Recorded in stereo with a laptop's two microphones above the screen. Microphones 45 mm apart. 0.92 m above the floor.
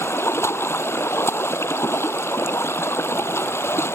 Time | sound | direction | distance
0.0 | running water | 70° left (ahead or behind) | ?